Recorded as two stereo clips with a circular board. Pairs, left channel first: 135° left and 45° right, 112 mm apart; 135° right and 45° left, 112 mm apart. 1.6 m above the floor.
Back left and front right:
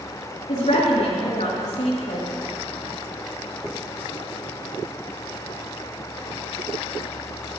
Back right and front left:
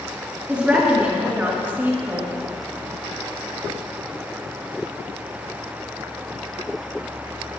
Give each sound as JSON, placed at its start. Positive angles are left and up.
{"t": 0.5, "sound": "a woman speaking", "azimuth_deg": 125, "distance_m": 4.0}